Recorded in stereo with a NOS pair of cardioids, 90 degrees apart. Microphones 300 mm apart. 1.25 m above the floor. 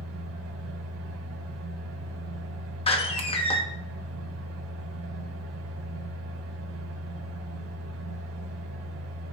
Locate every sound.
0.0 s a fan: 55° right, 4 m
2.9 s a door slam: 20° left, 1.5 m